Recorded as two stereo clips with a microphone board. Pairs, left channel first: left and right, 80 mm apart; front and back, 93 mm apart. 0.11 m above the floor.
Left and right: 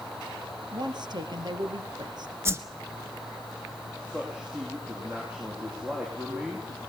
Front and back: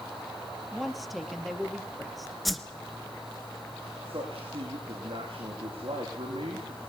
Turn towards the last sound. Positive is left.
turn(degrees=-160)